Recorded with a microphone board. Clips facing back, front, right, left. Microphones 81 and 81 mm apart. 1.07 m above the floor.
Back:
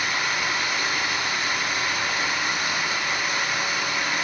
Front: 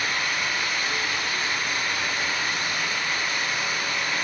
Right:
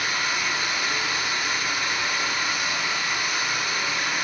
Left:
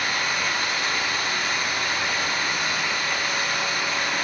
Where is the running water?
165° right, 7 m.